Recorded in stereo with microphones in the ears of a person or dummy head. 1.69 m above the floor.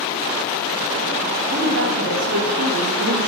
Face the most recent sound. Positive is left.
turn(degrees=-60)  # may be behind; listen again after turning